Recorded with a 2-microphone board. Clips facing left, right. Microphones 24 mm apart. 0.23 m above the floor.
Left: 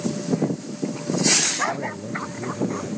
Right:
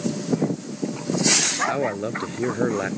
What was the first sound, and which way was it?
A man speaking, 70° right (ahead or behind).